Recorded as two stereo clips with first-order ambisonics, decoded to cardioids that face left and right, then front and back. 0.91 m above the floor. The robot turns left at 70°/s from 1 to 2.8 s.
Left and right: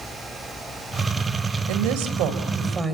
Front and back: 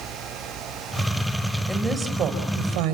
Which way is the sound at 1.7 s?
85° right.